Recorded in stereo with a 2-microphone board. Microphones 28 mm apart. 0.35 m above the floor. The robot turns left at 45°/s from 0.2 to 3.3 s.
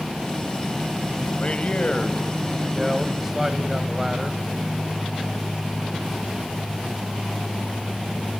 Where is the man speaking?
70° left, 1.6 m; by 4.4 s 15° right, 1.6 m.